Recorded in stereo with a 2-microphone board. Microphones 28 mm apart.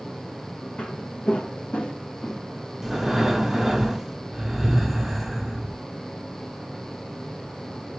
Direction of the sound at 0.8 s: 65° left (ahead or behind).